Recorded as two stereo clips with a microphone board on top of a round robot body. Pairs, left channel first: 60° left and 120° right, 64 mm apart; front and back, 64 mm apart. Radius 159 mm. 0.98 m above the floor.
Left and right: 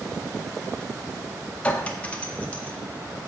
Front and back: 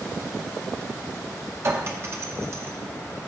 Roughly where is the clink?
Behind left.